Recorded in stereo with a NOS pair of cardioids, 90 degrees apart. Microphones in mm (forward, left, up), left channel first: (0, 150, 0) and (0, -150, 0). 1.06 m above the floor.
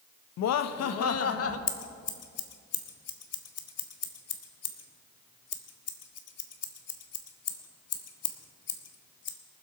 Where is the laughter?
65° left, 0.8 m; by 1.6 s 50° left, 1.4 m.